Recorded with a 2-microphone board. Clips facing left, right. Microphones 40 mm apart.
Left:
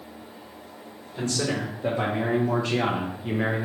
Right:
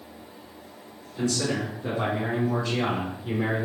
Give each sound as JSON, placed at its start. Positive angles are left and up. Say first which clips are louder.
{"t": 1.1, "sound": "a man speaking", "louder": "right 1 dB", "side_deg": 55, "distance_m": 1.7}